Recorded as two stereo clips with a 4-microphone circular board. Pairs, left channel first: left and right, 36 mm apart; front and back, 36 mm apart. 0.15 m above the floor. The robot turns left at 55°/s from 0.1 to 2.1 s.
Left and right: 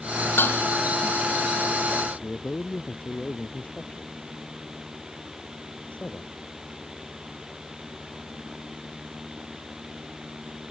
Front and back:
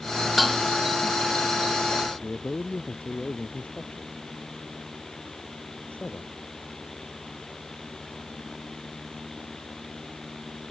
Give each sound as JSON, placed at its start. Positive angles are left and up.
{"t": 0.4, "sound": "dishes clattering", "azimuth_deg": 95}
{"t": 2.2, "sound": "a man speaking", "azimuth_deg": 45}